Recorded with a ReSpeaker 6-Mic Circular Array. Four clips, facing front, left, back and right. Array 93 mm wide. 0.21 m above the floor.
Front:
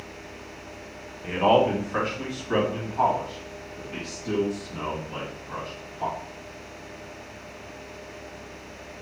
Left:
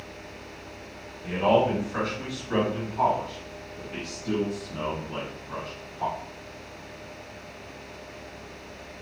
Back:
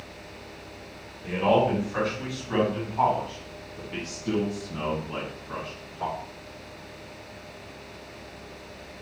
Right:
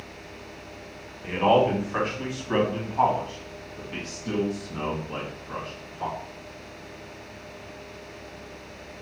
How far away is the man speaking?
About 1.5 m.